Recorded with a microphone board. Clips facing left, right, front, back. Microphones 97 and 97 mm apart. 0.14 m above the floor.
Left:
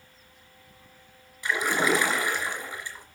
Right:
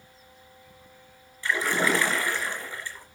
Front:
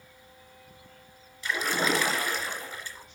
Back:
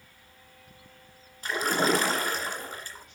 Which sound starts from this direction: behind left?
A splash, at 1.4 s.